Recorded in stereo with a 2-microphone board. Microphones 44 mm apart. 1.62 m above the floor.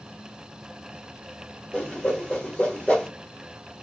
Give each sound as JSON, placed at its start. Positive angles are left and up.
{"t": 1.7, "sound": "a whoosh", "side_deg": 30, "distance_m": 1.4}